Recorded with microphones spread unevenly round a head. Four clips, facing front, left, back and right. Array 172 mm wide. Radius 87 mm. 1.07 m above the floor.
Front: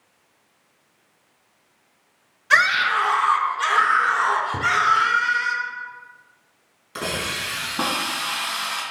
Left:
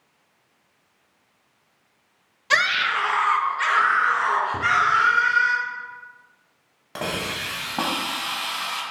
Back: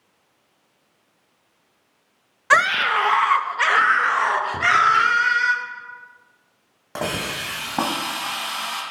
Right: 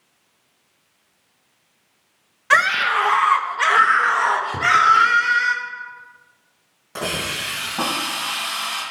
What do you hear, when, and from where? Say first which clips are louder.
2.5 s a scream: right 5 dB, back 1 dB; 175° right, 0.6 m; by 5.5 s 135° right, 2.5 m
4.5 s a drawer: right 2 dB, back 1 dB; 20° right, 0.7 m
7.0 s a hiss: right 2 dB, back 2 dB; 170° left, 2.5 m